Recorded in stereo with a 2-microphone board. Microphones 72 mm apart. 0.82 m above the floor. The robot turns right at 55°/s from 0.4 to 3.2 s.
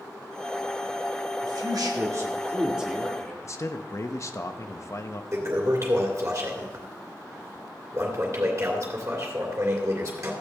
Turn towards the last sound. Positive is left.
turn(degrees=-40)  # may be behind; listen again after turning